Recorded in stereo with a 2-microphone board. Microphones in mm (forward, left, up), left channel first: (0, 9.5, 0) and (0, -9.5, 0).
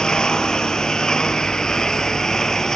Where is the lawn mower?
40° left (ahead or behind); by 2.8 s 25° left (ahead or behind).